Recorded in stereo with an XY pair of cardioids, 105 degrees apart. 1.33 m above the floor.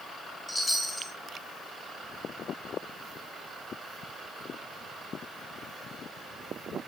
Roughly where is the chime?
Ahead.